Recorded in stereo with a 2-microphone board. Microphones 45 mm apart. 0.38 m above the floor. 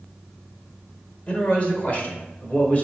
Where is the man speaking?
30° left (ahead or behind), 1.2 m; by 2.9 s 35° left (ahead or behind), 1.3 m.